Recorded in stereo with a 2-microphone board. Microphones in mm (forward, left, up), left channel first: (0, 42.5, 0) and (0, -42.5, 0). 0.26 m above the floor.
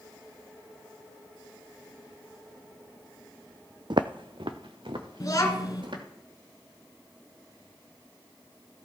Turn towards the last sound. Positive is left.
turn(degrees=45)  # may be behind; listen again after turning